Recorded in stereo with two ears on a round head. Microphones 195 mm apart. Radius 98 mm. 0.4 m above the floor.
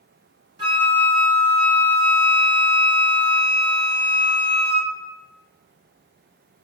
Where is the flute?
25° right (ahead or behind), 1.9 m.